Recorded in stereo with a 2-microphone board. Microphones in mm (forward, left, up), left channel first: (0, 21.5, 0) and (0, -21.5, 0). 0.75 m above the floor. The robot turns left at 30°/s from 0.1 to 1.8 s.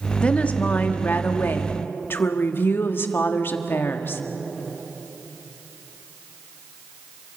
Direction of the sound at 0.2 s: 150° left.